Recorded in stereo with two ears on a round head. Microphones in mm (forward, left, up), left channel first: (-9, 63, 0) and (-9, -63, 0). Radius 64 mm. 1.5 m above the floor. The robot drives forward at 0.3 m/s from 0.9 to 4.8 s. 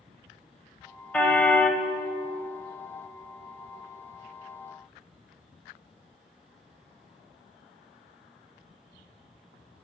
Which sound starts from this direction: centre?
A car horn, at 1.1 s.